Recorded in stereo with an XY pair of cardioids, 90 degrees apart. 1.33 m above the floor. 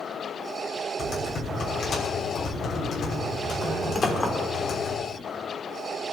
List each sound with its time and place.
1.0 s typing on a keyboard: 55° left, 6.5 m
4.0 s a clink: 30° left, 3 m